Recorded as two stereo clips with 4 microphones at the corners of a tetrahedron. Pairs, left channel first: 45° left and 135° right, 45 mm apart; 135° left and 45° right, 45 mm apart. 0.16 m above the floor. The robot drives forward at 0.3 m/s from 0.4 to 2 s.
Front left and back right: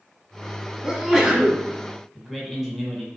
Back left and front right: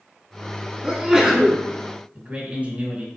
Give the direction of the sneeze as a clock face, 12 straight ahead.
2 o'clock.